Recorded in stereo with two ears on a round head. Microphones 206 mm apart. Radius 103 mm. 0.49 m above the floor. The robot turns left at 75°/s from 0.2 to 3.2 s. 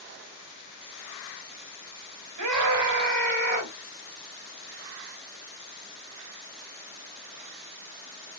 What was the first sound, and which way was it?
A scream, 85° right.